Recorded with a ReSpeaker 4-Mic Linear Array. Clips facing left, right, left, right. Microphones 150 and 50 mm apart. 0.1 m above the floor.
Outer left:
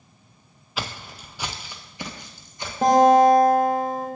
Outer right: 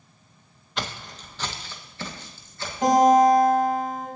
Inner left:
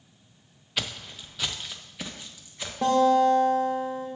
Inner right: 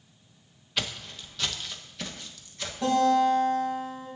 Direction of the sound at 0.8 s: 5° left (ahead or behind).